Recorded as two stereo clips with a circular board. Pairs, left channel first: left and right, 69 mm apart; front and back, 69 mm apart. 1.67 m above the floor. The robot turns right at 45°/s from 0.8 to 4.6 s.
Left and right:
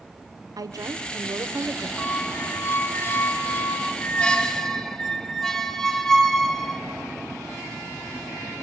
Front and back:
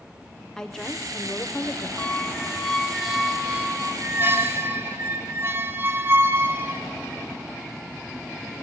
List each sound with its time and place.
0.6 s a woman speaking: 80° right, 0.6 m; by 1.9 s 35° right, 0.6 m
2.0 s a squeak: 55° left, 0.6 m; by 6.8 s 170° left, 0.6 m